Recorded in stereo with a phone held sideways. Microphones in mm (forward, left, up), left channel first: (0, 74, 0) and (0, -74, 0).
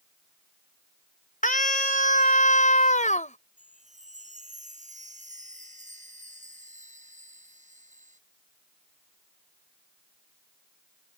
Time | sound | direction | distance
1.4 | a scream | 65° left (ahead or behind) | ?
3.6 | a chime | 55° right (ahead or behind) | ?